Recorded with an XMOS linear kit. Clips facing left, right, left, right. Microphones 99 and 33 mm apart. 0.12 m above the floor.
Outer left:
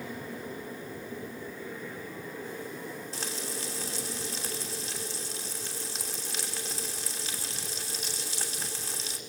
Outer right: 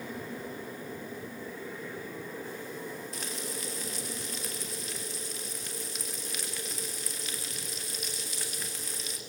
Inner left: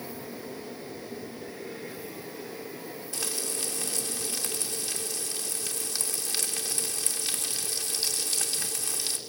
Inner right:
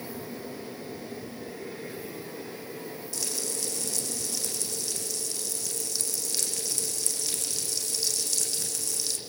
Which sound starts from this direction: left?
Frying, at 3.1 s.